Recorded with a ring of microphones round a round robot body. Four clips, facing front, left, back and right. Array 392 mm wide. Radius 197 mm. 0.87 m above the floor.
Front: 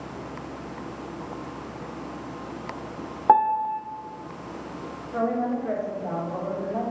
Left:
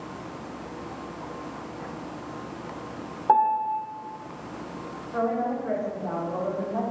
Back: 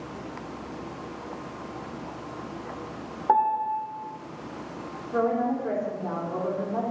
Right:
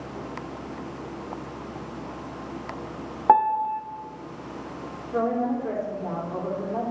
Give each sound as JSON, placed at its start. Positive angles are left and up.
{"t": 3.3, "sound": "a piano", "azimuth_deg": -55, "distance_m": 0.5}
{"t": 5.1, "sound": "a woman speaking", "azimuth_deg": -150, "distance_m": 2.5}